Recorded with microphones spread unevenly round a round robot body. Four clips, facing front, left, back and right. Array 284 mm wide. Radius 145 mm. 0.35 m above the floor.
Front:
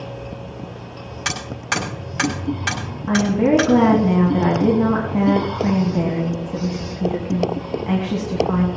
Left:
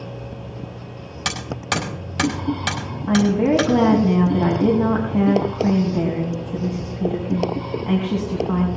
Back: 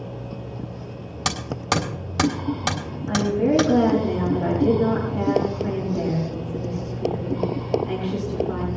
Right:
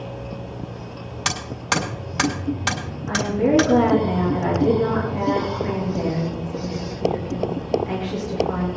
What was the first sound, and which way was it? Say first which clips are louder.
Hammering: even, back 1 dB; 170° left.